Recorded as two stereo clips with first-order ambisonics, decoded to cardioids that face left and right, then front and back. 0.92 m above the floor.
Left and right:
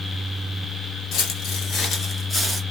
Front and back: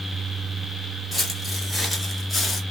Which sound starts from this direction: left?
Footsteps, at 1.1 s.